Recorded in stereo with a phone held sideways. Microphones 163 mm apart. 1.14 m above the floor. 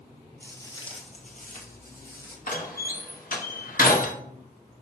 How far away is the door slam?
About 1.2 m.